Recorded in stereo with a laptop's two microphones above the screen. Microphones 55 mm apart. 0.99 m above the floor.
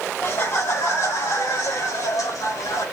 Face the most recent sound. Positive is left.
turn(degrees=75)  # may be behind; listen again after turning